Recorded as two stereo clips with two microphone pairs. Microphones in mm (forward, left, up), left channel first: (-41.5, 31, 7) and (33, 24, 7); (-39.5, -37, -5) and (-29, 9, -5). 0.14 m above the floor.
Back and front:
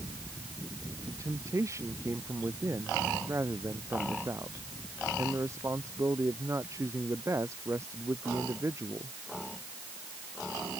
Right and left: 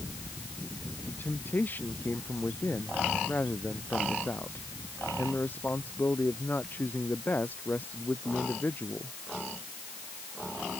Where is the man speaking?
55° right.